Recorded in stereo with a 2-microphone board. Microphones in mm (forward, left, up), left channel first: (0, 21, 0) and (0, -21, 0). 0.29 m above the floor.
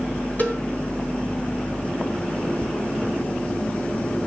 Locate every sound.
0.4 s a cowbell: 45° left (ahead or behind), 3 m